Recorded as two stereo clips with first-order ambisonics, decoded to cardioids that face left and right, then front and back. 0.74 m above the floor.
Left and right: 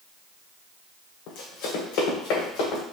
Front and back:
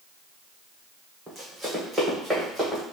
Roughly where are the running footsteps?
Left.